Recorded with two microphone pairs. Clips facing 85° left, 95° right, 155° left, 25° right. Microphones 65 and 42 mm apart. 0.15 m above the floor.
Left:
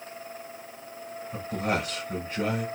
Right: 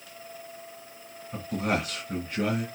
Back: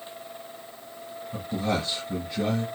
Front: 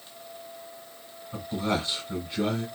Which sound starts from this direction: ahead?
A man speaking, at 1.3 s.